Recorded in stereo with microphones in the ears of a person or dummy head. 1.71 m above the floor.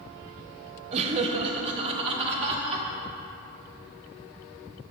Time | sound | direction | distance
0.9 | laughter | 35° right (ahead or behind) | 1.0 m